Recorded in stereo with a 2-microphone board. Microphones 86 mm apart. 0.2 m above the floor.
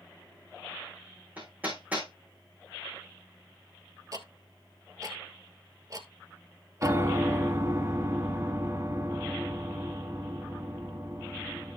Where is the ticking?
40° right (ahead or behind), 1.2 m.